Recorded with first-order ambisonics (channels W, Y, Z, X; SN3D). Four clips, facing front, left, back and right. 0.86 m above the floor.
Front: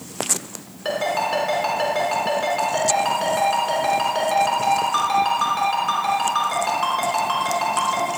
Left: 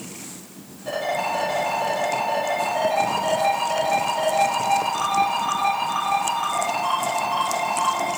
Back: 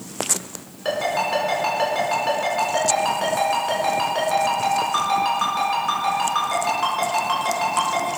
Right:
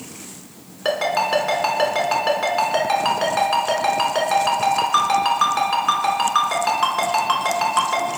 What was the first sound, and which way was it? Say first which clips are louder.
A ringtone: right 5 dB, even; 85° right.